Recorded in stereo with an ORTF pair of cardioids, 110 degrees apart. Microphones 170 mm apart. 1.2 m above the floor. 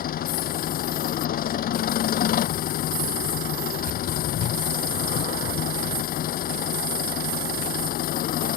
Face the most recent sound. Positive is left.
turn(degrees=60)